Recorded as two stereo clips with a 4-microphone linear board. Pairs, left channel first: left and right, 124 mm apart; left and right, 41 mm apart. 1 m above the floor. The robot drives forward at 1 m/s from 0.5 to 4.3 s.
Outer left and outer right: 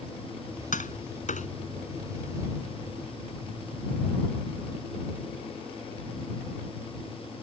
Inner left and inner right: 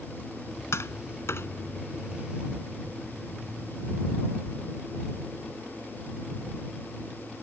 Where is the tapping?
80° left; by 1.5 s 70° left (ahead or behind).